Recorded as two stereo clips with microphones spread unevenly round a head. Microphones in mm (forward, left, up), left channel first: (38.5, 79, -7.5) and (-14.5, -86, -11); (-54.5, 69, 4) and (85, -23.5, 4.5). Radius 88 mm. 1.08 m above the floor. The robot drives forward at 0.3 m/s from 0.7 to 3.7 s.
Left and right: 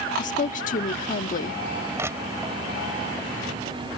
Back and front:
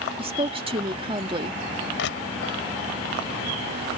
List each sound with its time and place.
0.2 s a woman speaking: 25° left; by 1.6 s 30° left
2.0 s crushing: 175° left